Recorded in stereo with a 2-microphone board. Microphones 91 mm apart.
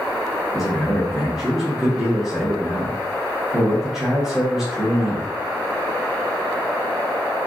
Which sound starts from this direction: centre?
A man speaking, at 0.5 s.